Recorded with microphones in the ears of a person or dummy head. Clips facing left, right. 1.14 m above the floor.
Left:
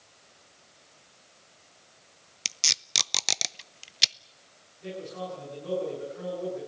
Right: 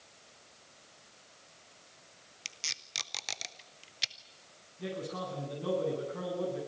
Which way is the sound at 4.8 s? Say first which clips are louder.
Left 1 dB; 75° right (ahead or behind).